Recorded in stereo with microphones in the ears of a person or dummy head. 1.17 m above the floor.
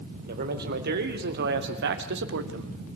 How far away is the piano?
No piano in this recording.